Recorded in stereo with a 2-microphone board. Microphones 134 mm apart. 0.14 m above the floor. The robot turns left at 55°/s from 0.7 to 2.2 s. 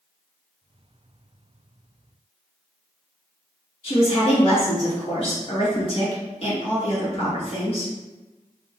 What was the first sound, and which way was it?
A woman speaking, 45° left (ahead or behind).